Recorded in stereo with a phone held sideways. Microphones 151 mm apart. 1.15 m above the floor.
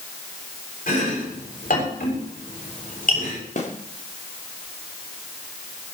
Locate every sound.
0.9 s chopping: 70° left (ahead or behind), 7 m
3.6 s a snare drum: 55° left (ahead or behind), 2.5 m